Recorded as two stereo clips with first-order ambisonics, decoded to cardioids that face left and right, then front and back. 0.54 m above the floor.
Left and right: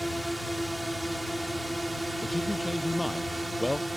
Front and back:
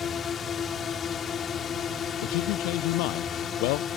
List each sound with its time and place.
0.0 s a drone: straight ahead; by 4.0 s 10° right
2.2 s a man speaking: 5° left